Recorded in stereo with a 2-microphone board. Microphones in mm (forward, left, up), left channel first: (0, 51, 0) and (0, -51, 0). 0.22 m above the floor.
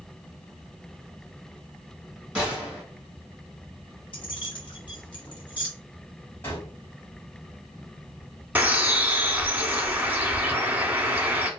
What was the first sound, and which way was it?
A gunshot, 15° right (ahead or behind).